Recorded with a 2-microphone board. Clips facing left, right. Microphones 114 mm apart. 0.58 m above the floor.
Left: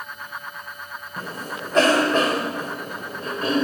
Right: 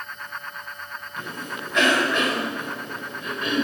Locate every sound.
1.2 s a cough: 35° left (ahead or behind), 3 m